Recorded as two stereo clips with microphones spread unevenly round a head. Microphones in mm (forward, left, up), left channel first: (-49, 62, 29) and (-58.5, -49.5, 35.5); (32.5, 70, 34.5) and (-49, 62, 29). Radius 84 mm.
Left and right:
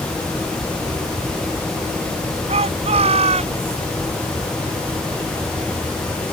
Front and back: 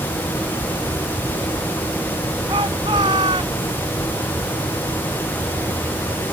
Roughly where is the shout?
Behind right.